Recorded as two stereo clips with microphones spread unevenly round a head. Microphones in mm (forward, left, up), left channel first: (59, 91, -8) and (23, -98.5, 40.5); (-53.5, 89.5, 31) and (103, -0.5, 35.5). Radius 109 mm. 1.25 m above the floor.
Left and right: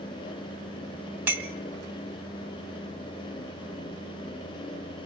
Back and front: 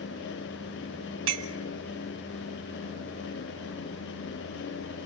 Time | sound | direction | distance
1.3 | a clink | 20° right | 2 m